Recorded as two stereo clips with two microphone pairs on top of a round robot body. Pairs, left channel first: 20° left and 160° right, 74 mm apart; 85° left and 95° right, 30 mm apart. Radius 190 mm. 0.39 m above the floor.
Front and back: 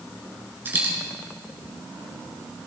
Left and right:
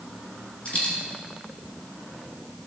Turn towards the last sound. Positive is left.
turn(degrees=140)